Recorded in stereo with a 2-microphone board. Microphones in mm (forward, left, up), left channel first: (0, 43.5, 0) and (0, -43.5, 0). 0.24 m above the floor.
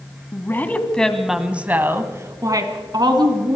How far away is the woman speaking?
About 2.5 m.